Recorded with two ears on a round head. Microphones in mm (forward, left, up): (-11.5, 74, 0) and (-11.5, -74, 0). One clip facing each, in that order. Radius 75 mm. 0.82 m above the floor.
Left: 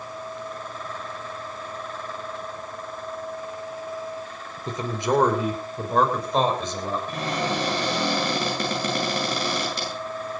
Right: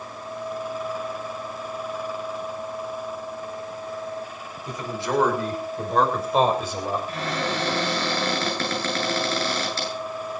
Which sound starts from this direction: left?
A man speaking, at 4.7 s.